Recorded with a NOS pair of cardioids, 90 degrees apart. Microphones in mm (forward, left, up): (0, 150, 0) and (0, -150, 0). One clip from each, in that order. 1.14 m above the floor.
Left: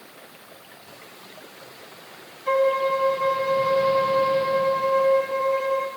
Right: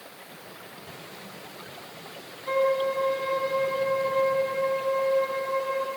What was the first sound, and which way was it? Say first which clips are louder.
A violin: left 4 dB; 55° left.